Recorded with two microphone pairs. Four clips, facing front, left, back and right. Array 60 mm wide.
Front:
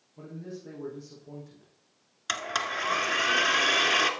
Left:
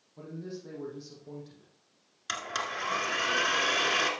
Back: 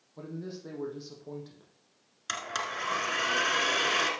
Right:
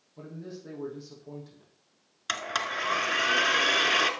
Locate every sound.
0.2 s a man speaking: 175° right, 4.5 m
2.3 s a blender: 55° right, 1.4 m